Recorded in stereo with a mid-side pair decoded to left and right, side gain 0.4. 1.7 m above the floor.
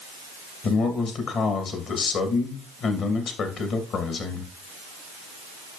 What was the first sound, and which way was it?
A man speaking, 70° left.